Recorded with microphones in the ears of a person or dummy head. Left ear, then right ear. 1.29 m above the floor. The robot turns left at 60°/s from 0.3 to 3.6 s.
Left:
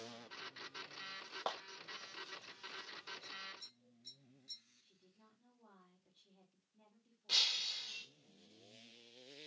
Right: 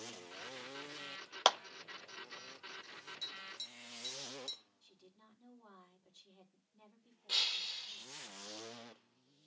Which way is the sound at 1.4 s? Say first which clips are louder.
Right 12 dB; 75° right (ahead or behind).